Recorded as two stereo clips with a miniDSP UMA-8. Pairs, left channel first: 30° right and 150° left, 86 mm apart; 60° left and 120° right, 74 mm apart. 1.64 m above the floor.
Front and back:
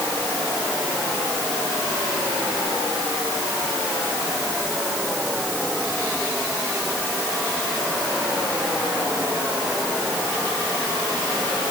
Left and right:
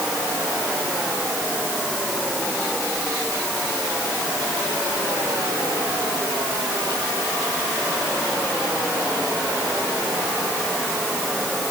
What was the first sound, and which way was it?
Only background noise.